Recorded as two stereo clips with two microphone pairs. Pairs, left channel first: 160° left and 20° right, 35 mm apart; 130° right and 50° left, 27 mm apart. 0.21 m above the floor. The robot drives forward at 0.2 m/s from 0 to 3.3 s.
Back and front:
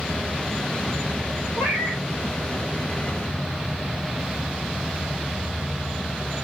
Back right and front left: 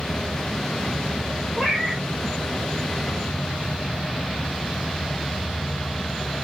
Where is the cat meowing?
160° left, 2.5 m; by 2.0 s 165° left, 2.5 m.